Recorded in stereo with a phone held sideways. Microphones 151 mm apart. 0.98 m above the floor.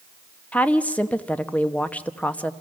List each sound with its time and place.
0.5 s a woman speaking: 10° left (ahead or behind), 0.9 m